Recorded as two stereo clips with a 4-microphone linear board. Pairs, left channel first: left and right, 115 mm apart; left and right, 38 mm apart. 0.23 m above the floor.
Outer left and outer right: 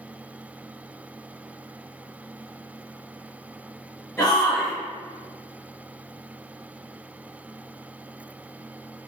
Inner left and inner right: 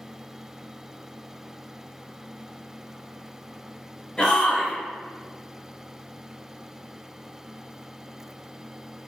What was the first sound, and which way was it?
A shout, 15° left (ahead or behind).